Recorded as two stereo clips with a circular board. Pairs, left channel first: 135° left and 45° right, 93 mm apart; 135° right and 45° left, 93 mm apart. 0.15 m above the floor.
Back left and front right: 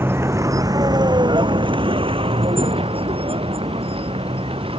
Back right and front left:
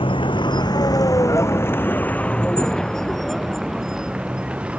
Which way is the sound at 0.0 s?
110° right.